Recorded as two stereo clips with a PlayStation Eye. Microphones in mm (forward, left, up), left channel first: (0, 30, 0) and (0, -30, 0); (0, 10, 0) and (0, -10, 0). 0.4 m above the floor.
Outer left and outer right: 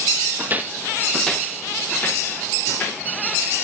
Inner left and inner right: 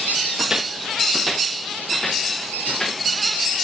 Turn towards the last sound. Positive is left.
turn(degrees=30)  # may be behind; listen again after turning